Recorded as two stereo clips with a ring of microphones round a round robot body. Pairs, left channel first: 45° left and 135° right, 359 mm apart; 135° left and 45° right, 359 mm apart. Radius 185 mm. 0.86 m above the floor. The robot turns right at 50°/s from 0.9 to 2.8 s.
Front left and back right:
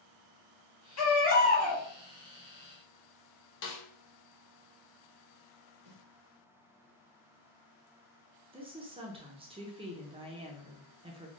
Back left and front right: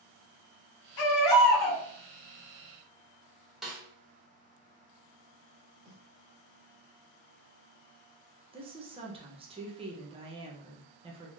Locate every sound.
1.0 s a baby crying: 95° left, 1.1 m; by 1.8 s 140° left, 1.1 m
3.6 s a snare drum: 45° left, 0.5 m
5.8 s a snare drum: 135° right, 1.8 m
8.5 s a woman speaking: 90° right, 0.6 m